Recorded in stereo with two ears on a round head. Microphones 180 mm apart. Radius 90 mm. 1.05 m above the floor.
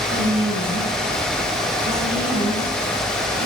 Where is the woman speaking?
25° right (ahead or behind), 5 m; by 3.5 s 50° right (ahead or behind), 5.5 m.